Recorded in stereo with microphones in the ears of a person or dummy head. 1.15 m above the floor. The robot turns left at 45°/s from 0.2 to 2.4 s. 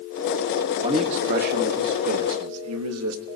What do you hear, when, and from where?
0.7 s a man speaking: 15° right, 1.3 m; by 3.2 s 95° right, 1.3 m